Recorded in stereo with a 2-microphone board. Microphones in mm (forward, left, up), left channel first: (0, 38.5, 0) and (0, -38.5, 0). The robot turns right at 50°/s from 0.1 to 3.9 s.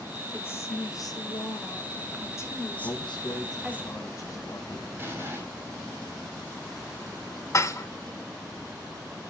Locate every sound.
0.3 s a woman speaking: 30° left, 2 m; by 3.8 s 155° right, 2 m
2.8 s a man speaking: 85° left, 2.5 m; by 4.9 s 135° left, 2.5 m
5.0 s an explosion: 30° right (ahead or behind), 3.5 m
7.5 s dishes clattering: 40° left (ahead or behind), 0.8 m